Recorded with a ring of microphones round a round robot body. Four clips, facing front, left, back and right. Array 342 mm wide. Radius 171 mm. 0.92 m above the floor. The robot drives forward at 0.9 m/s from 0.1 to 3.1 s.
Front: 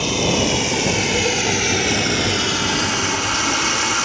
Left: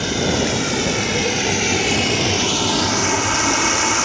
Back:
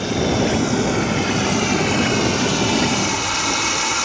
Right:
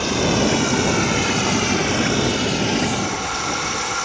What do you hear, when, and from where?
0.0 s running water: 30° left; by 4.0 s 80° left